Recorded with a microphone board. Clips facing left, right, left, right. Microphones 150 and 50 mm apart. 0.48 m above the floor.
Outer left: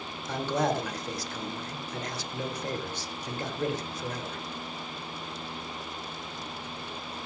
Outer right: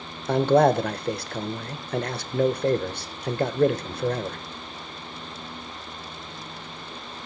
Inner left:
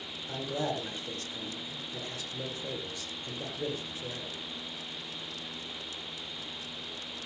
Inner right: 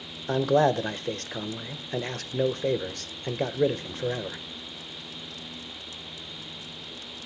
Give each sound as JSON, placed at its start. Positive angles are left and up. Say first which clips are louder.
{"t": 0.3, "sound": "a man speaking", "louder": "outer right 10 dB, inner right 12 dB", "side_deg": -60, "distance_m": 1.4}